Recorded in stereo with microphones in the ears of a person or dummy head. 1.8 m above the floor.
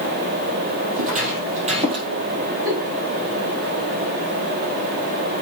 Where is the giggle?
50° right (ahead or behind), 4.5 m.